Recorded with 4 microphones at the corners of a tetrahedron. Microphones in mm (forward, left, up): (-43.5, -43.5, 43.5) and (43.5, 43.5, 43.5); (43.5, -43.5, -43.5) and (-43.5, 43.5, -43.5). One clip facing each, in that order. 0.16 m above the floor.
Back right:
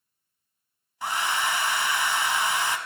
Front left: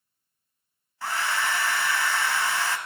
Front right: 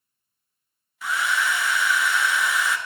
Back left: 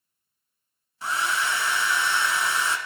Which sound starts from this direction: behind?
A hair dryer, at 1.0 s.